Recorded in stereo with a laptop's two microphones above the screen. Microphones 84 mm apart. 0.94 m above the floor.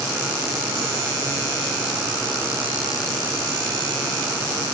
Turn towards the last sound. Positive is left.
No sound to turn to.